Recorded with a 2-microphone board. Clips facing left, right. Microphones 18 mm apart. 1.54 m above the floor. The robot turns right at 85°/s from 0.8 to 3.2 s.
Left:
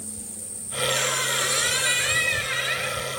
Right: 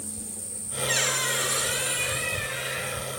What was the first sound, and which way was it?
A squeak, 30° right.